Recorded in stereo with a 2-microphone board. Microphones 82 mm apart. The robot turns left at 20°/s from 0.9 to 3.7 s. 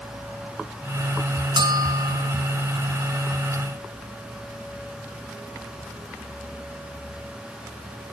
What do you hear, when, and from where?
1.6 s a bell: 65° right (ahead or behind), 2.5 m; by 2.4 s 50° right (ahead or behind), 2.5 m